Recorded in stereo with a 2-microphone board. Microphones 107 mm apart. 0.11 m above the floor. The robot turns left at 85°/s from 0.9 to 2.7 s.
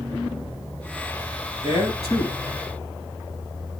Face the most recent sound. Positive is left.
turn(degrees=15)